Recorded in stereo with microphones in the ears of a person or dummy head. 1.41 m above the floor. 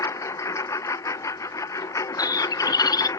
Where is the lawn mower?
15° left (ahead or behind).